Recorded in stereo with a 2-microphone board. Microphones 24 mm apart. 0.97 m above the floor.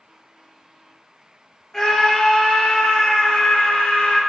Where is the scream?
20° left (ahead or behind), 1.7 m; by 4.2 s 55° left (ahead or behind), 3 m.